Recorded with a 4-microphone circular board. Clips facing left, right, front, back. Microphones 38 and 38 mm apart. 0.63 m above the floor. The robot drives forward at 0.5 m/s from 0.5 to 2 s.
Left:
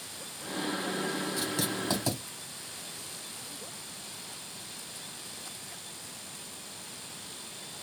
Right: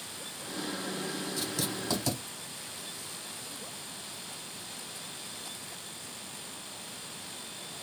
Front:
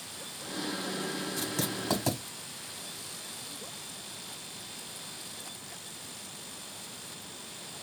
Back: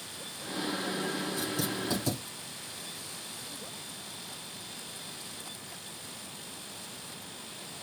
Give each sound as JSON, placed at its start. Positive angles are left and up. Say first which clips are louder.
{"t": 1.4, "sound": "writing", "louder": "left 2 dB, back 1 dB", "azimuth_deg": 20, "distance_m": 1.6}